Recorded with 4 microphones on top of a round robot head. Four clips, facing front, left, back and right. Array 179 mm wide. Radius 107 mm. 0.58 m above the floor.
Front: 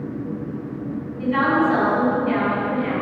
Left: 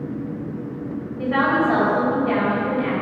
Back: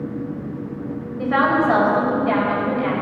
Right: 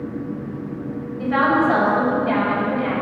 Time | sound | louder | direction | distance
1.2 | a woman speaking | right 2 dB, back 1 dB | 175° right | 3.5 m